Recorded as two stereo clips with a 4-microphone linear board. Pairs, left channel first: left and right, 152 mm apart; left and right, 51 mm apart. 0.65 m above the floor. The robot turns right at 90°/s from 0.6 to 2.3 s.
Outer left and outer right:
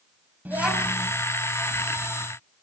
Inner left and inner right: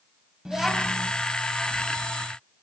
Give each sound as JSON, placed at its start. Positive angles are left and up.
{"t": 0.5, "sound": "a child speaking", "azimuth_deg": -10, "distance_m": 3.0}